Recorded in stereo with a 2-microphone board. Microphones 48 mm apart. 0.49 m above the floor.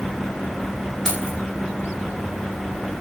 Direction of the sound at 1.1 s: 10° left (ahead or behind).